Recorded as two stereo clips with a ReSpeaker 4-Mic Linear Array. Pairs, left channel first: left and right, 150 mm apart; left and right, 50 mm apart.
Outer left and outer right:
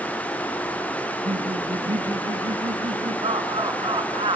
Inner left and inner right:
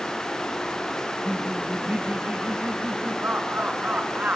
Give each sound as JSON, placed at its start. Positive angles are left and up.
{"t": 1.0, "sound": "laughter", "side_deg": -35, "distance_m": 2.5}